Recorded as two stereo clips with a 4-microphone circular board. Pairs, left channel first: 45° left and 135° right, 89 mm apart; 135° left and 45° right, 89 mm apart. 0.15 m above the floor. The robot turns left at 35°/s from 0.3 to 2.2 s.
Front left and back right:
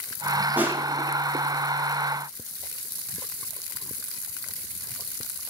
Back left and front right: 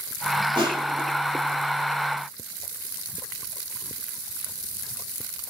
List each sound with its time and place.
0.6 s crushing: 65° right, 4.5 m; by 1.1 s 85° right, 4.5 m